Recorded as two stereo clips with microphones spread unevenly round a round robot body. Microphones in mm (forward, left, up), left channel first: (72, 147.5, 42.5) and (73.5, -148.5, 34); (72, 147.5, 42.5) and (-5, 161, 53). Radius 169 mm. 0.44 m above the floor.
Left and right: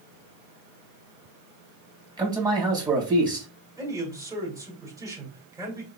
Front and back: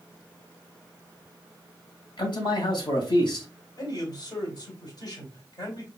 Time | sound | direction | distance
2.2 | a man speaking | 15° right | 2.5 m
3.8 | a man speaking | 15° right | 2.5 m